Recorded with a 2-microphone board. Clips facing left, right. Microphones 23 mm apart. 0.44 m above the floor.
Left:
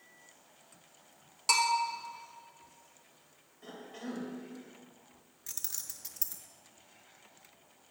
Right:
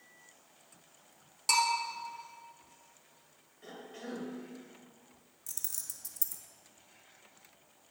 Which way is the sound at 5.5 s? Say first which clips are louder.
Left 2 dB; 30° left (ahead or behind).